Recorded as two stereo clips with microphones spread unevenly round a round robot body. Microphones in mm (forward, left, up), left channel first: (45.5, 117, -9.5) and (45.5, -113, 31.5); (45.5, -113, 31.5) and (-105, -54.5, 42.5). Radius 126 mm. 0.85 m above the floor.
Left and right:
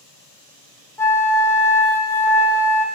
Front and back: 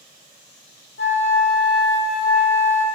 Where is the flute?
10° left, 1.2 m.